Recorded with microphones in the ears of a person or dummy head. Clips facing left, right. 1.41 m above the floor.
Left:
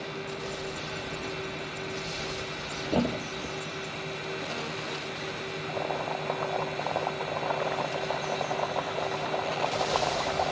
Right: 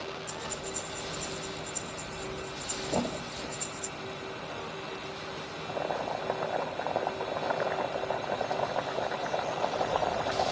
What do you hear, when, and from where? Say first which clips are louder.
0.3 s breathing: left 3 dB; 55° right (ahead or behind)
2.9 s a thud: left 5 dB; 20° left (ahead or behind)
5.7 s boiling: even; 5° right (ahead or behind)